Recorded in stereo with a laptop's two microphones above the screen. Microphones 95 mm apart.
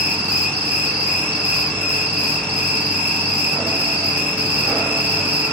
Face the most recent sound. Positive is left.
turn(degrees=-20)  # may be behind; listen again after turning